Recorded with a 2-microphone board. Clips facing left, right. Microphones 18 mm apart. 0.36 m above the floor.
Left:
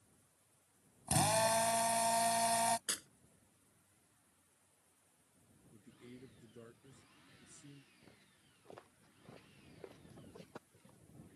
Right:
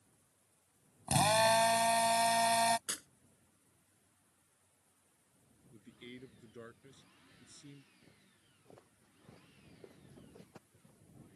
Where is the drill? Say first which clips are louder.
Right 4 dB; 40° right (ahead or behind).